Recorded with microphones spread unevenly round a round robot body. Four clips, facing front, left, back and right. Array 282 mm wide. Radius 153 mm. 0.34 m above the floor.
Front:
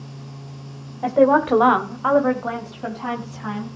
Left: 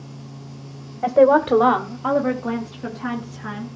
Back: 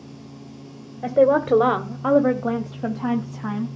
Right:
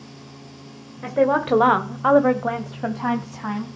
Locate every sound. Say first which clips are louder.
1.0 s a woman speaking: left 5 dB, front 1 dB; 140° left, 1.3 m; by 3.7 s 145° right, 3 m